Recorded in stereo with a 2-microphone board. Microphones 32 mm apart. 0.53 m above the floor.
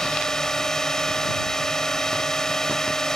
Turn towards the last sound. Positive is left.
turn(degrees=15)  # may be behind; listen again after turning